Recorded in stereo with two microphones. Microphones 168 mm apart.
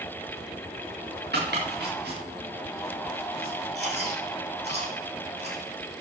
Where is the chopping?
85° right, 6.5 m.